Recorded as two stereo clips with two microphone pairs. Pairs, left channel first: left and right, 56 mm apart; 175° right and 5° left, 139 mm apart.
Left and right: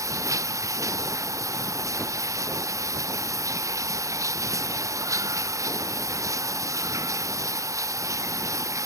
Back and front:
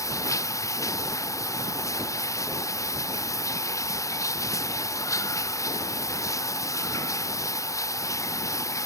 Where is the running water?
105° right.